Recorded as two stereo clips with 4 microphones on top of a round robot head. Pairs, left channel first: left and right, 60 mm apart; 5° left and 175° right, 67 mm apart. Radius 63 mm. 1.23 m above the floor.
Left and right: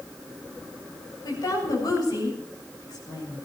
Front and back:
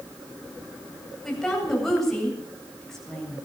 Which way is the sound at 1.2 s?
90° left.